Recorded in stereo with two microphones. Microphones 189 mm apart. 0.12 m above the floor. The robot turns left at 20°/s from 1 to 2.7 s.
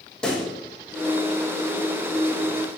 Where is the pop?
5° left (ahead or behind), 3 m.